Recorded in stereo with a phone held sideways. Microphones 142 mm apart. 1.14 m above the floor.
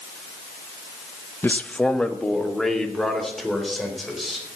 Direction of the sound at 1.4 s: 15° left (ahead or behind).